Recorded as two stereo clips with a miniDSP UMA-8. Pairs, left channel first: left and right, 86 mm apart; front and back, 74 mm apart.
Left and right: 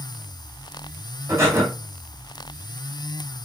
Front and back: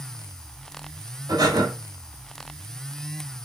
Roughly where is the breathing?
Behind right.